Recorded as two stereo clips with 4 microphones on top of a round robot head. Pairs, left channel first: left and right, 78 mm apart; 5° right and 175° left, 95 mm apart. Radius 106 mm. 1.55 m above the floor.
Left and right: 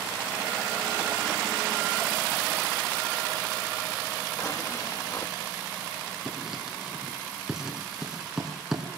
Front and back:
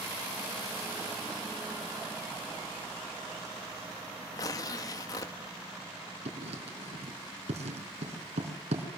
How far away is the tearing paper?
About 1.0 m.